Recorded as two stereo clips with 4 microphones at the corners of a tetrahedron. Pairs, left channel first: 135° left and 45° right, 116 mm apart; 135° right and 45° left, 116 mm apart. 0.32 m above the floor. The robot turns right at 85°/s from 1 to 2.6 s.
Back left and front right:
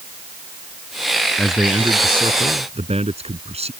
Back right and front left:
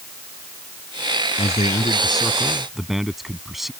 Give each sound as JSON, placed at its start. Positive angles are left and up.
{"t": 1.4, "sound": "a man speaking", "azimuth_deg": -145}